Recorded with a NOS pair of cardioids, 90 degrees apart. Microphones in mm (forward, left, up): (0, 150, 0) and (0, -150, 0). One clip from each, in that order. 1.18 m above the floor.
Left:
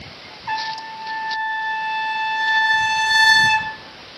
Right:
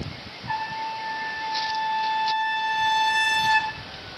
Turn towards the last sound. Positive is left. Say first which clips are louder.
# left 3 dB
turn(degrees=45)